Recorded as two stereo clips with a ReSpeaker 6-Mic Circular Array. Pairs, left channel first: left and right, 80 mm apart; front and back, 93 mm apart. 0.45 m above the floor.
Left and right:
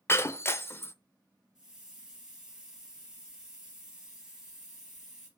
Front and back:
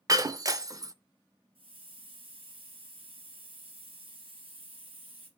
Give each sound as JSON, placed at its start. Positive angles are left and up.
{"t": 0.1, "sound": "breaking glass", "azimuth_deg": 140, "distance_m": 0.6}
{"t": 1.6, "sound": "a hiss", "azimuth_deg": -175, "distance_m": 3.5}